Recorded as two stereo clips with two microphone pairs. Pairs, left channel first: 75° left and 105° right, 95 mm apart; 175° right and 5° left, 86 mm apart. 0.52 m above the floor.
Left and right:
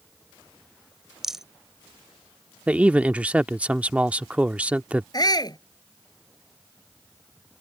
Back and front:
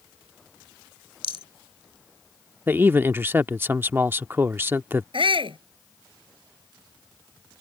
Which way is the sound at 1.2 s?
170° left.